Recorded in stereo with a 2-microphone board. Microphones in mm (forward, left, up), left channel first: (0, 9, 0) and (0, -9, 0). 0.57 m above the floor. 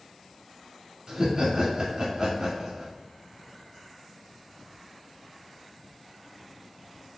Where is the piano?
No piano in this recording.